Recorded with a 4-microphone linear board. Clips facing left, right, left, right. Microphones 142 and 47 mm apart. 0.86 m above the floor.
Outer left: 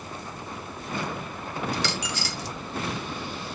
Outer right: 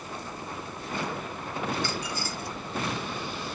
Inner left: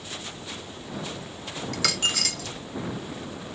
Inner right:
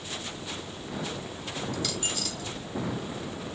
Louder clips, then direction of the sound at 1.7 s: Outer left 1 dB, inner left 10 dB; 80° left.